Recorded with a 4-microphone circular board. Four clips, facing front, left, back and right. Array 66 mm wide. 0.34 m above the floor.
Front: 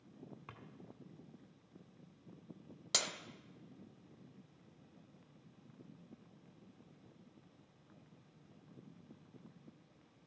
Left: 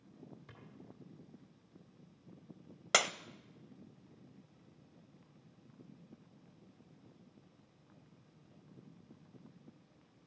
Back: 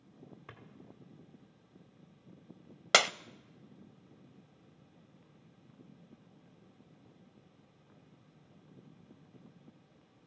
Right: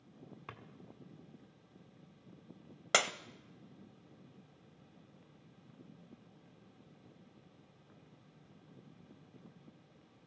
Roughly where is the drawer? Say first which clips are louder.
Right 7 dB, back 5 dB; right.